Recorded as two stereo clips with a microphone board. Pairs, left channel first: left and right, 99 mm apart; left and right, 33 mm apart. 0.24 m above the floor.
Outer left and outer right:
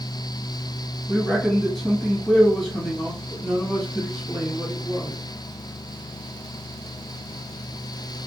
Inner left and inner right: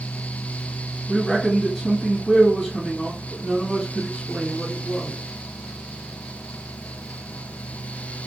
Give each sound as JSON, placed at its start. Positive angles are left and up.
{"t": 1.1, "sound": "a man speaking", "side_deg": 0, "distance_m": 1.4}